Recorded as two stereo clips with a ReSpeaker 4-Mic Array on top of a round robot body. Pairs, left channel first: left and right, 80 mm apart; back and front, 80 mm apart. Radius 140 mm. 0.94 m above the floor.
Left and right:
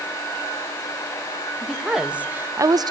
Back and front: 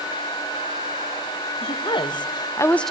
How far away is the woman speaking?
About 1.4 m.